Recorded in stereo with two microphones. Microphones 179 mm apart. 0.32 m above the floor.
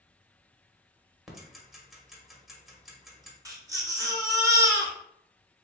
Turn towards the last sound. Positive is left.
turn(degrees=-20)  # may be behind; listen again after turning